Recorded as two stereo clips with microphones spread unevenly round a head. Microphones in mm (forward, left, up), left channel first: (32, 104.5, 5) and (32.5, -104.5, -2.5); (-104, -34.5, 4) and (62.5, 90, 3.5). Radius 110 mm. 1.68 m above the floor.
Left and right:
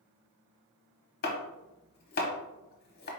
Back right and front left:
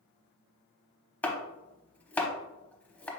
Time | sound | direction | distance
1.2 | chopping | 135° left | 1.0 m